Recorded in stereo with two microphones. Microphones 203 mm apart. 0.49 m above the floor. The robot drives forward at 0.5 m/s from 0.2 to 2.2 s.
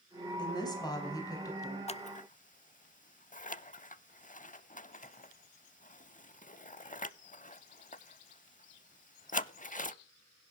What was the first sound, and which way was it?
A woman speaking, 20° left (ahead or behind).